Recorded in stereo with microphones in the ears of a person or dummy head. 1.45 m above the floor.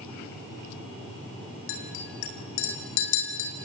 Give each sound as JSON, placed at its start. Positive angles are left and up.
{"t": 1.7, "sound": "a clink", "side_deg": 55, "distance_m": 3.0}